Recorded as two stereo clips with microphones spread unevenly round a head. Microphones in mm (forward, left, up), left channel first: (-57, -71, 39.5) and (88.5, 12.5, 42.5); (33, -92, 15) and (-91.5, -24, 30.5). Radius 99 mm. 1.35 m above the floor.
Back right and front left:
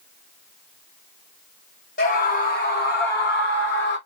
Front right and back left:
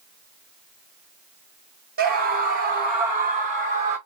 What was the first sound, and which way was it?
A scream, 160° left.